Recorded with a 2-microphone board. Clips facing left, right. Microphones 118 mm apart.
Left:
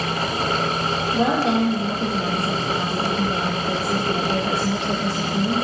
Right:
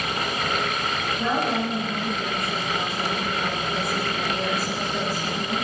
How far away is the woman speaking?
About 8.5 m.